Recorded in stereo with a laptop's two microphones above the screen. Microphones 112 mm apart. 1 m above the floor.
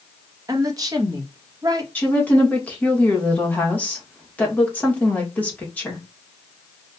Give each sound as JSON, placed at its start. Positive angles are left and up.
{"t": 0.5, "sound": "a woman speaking", "side_deg": -35, "distance_m": 0.9}
{"t": 1.9, "sound": "a woman speaking", "side_deg": 15, "distance_m": 1.5}